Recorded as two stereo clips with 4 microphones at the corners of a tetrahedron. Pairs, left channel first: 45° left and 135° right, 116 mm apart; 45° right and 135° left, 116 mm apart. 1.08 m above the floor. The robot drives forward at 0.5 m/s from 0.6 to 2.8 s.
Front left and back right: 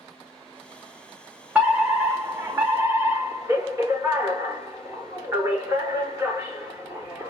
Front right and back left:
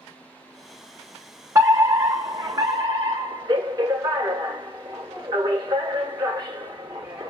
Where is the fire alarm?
155° left, 1.1 m; by 7.3 s 170° left, 1.5 m.